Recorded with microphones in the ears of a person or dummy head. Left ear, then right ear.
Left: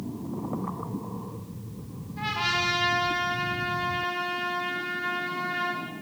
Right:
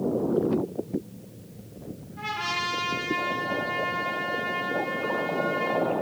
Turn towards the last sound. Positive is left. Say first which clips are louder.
# left 2 dB
turn(degrees=20)  # may be behind; listen again after turning